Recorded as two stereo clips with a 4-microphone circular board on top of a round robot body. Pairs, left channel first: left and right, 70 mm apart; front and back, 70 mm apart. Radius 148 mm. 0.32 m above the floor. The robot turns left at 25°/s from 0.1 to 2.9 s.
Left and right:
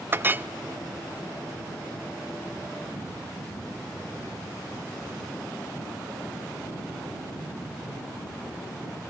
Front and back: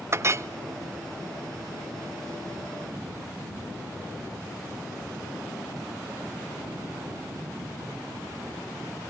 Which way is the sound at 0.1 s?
140° right.